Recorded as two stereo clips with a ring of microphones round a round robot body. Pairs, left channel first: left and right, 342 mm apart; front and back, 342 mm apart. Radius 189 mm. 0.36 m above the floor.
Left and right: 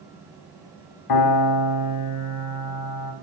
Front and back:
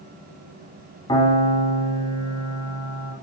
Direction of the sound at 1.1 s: 80° left.